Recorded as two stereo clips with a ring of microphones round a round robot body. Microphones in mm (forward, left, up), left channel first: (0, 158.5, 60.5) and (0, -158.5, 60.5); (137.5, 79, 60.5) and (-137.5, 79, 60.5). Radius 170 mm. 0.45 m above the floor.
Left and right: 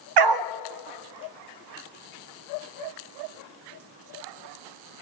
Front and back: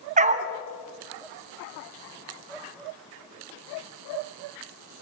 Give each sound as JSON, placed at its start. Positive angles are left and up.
{"t": 0.2, "sound": "a dog barking", "azimuth_deg": -110, "distance_m": 0.8}